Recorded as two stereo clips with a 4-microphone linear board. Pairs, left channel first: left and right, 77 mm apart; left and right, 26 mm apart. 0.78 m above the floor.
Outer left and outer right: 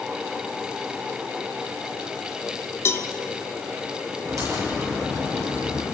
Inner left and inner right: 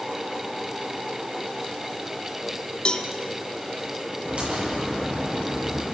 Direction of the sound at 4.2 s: 45° right (ahead or behind).